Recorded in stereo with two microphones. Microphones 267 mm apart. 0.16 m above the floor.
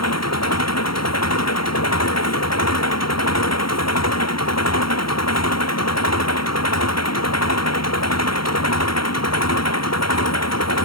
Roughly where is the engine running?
Left.